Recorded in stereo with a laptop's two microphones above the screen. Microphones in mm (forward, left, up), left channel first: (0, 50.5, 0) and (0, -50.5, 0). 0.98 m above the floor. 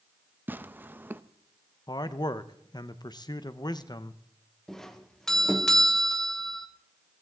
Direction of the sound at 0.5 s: 20° right (ahead or behind).